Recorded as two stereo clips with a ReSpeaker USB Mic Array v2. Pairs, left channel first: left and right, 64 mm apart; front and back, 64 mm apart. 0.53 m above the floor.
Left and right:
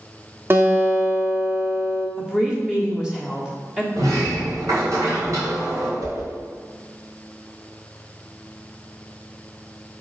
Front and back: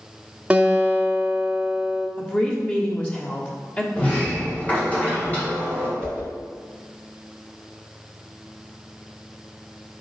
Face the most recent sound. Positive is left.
turn(degrees=-75)